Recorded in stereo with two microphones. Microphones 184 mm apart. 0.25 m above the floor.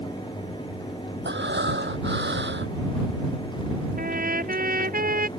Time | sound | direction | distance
1.2 | breathing | 75° right (ahead or behind) | ?
4.0 | a trumpet | 50° right (ahead or behind) | ?